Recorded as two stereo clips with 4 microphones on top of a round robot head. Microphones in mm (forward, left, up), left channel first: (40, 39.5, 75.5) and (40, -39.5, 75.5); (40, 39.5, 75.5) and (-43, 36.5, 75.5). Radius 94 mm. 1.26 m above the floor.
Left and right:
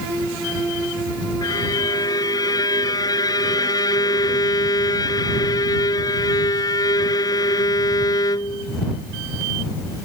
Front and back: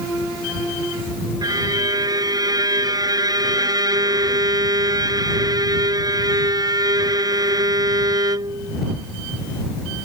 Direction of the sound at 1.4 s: 140° left.